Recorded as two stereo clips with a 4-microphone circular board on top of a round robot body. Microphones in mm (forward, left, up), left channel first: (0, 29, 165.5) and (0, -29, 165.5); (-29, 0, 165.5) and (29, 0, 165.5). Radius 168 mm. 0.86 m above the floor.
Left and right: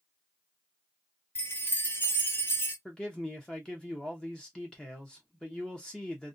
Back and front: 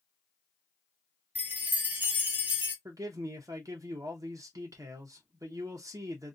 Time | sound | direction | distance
1.4 | a chime | 50° left | 1.1 m
2.9 | a man speaking | 15° left | 0.7 m